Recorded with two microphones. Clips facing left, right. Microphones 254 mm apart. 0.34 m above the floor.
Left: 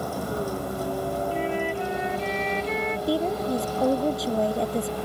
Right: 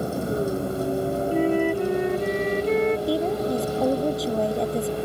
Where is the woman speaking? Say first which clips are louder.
Right 2 dB; centre (ahead or behind).